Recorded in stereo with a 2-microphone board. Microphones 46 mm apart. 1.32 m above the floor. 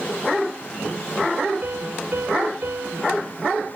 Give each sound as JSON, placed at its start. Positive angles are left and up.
{"t": 1.6, "sound": "a piano", "side_deg": -50, "distance_m": 3.0}